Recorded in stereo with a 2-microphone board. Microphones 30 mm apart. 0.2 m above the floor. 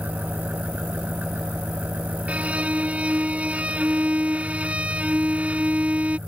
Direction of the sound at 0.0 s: 75° right (ahead or behind).